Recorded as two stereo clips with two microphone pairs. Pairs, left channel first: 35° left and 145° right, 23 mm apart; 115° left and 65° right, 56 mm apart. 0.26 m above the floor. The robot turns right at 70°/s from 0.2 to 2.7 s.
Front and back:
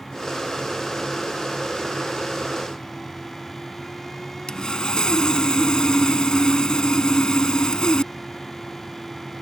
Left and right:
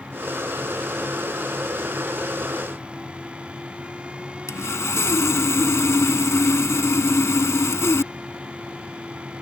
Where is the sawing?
85° left.